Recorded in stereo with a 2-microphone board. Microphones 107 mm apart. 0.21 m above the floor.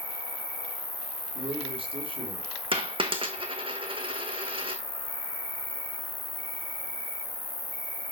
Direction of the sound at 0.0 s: 15° left (ahead or behind).